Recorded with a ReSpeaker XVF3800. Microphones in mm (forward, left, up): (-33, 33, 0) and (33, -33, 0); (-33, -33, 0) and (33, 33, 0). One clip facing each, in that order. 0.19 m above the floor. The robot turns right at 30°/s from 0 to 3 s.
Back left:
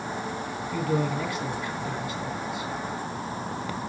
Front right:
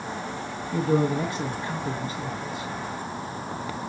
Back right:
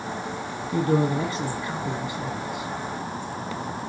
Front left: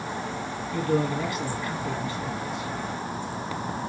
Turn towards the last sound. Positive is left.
turn(degrees=-40)